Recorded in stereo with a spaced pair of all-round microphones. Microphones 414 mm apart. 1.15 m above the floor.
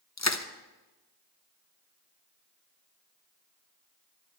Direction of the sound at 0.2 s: 40° left (ahead or behind).